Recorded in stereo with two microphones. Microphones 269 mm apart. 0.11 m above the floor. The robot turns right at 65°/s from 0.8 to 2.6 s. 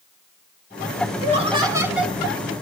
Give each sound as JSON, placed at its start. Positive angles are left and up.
{"t": 1.2, "sound": "laughter", "side_deg": -25, "distance_m": 1.1}